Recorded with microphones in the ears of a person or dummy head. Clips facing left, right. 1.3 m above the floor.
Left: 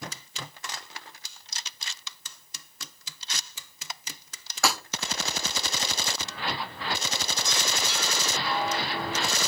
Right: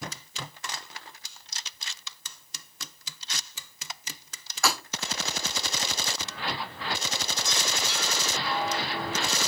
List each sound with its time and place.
4.6 s breaking glass: 60° left (ahead or behind), 6 m